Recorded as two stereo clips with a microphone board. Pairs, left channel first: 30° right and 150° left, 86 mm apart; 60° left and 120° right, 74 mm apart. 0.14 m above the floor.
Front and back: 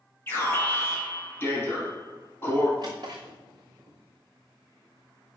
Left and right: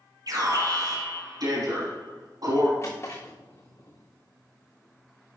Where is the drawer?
110° left, 3.5 m.